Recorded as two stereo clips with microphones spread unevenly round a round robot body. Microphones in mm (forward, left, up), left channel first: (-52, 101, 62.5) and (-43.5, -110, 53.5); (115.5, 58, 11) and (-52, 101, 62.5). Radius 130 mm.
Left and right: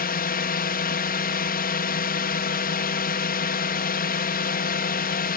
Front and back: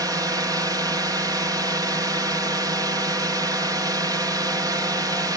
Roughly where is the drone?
Left.